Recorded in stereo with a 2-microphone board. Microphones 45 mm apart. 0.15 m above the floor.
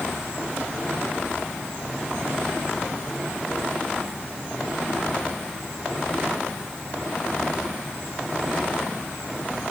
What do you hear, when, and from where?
Only background noise.